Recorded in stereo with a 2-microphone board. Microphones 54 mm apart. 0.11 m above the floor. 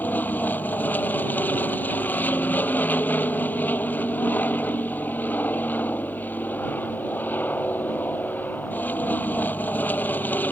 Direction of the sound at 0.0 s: 35° left (ahead or behind).